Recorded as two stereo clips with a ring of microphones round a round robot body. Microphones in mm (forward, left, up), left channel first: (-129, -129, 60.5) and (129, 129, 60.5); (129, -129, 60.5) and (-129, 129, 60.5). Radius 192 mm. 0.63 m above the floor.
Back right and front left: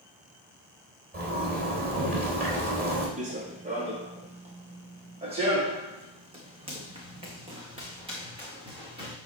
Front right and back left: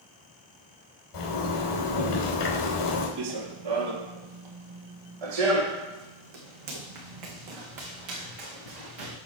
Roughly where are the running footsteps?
Left.